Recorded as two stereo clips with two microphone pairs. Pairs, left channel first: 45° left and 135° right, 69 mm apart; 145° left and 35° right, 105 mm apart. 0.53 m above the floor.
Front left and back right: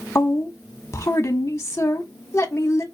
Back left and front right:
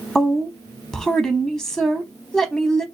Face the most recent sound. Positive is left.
turn(degrees=60)